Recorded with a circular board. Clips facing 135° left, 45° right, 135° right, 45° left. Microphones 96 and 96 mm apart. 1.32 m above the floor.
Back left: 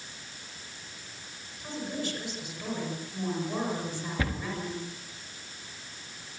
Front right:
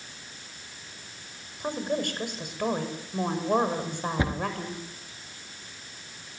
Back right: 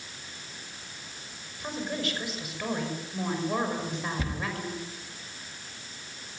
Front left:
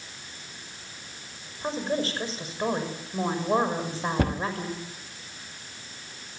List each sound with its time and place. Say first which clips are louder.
1.6 s a woman speaking: front right 6 dB, front left 5 dB; 15° right, 6 m
4.2 s a cupboard door: front right 3 dB, front left 8 dB; 25° left, 1.2 m